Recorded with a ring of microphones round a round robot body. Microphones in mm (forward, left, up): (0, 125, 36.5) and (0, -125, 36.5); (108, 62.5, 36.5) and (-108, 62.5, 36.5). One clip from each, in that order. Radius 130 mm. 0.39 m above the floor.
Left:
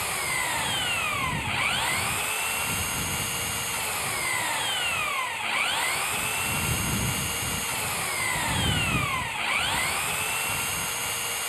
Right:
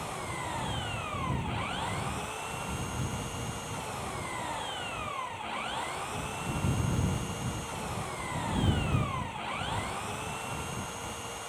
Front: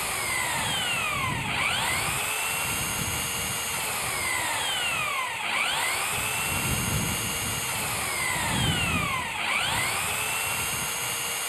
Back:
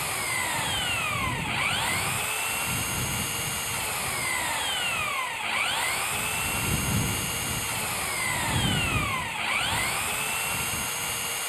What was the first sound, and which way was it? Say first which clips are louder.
An engine running: left 9 dB, even; 75° left.